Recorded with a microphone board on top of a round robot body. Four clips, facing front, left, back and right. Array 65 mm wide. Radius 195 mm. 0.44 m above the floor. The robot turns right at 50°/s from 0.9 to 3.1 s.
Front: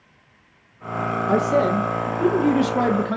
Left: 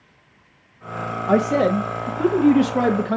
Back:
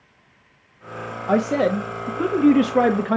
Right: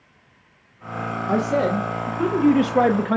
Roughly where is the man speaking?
Behind left.